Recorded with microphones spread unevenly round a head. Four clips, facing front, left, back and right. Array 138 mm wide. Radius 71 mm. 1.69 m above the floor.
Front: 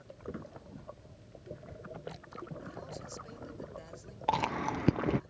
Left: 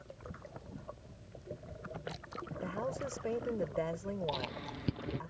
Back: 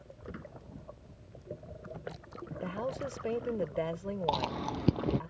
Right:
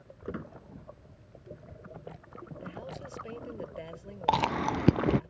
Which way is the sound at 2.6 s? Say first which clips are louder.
Left 6 dB, back 9 dB; 155° left.